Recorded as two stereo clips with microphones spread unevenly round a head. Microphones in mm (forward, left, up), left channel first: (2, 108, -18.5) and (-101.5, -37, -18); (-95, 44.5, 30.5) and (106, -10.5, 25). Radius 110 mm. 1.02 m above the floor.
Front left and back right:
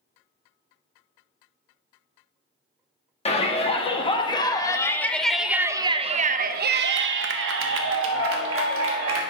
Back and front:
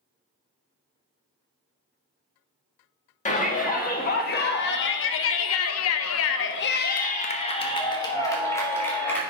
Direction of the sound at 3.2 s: 110° left.